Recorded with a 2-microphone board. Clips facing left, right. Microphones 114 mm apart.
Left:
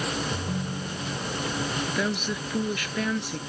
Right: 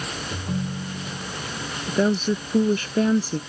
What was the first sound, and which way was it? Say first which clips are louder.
A ringtone: right 2 dB; 15° right (ahead or behind).